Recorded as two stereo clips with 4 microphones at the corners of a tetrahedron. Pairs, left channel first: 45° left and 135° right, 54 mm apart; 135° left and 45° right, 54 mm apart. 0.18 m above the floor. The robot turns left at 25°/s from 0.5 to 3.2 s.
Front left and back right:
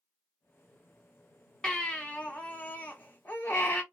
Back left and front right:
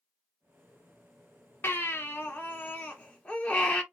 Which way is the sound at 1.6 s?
115° left.